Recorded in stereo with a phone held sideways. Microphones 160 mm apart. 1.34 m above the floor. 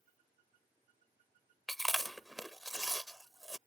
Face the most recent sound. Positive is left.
turn(degrees=0)  # may be behind; listen again after turning